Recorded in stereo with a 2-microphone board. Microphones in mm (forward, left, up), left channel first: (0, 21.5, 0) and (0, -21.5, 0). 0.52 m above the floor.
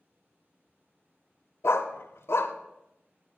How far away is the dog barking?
About 0.5 m.